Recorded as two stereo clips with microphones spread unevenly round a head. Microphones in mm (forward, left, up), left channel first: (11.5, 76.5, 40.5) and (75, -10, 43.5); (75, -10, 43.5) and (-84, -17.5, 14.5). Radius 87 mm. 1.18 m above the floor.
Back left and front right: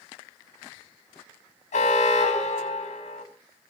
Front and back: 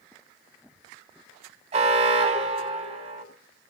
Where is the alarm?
130° left, 4 m.